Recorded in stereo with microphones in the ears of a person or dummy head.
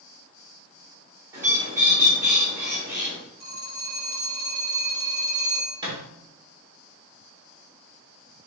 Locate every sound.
1.3 s a bird: 25° right (ahead or behind), 1.5 m
3.4 s a phone ringing: 85° right, 1.7 m
5.8 s a thud: 30° right (ahead or behind), 1.4 m